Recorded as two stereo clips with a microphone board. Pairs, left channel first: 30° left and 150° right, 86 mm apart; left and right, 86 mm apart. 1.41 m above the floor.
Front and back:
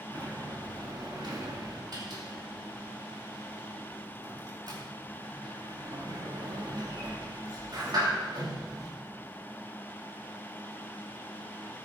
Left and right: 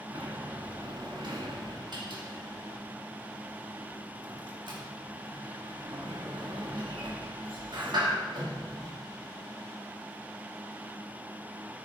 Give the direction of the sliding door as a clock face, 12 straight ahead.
4 o'clock.